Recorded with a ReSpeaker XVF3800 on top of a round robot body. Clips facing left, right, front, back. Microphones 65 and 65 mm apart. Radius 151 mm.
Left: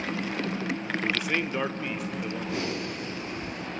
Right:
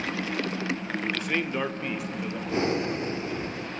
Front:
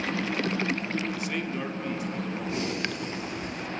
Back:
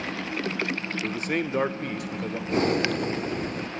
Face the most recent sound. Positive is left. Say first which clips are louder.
# right 5 dB, back 11 dB
turn(degrees=-145)